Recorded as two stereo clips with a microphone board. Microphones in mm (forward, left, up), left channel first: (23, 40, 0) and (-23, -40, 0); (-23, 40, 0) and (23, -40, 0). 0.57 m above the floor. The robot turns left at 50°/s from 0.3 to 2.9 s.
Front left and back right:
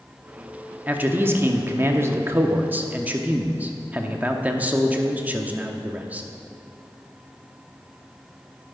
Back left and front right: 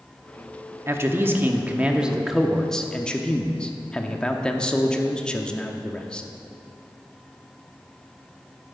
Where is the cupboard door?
I don't hear a cupboard door.